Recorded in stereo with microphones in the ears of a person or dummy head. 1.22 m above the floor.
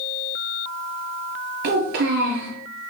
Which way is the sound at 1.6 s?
55° right (ahead or behind).